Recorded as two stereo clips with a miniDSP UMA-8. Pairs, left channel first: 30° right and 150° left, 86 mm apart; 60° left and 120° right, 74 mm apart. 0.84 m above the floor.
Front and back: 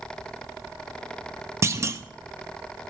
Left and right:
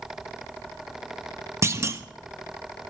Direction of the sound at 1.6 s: 160° right.